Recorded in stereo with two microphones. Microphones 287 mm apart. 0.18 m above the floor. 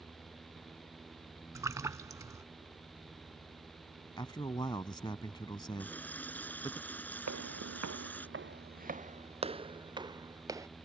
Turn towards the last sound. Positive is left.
turn(degrees=-10)  # may be behind; listen again after turning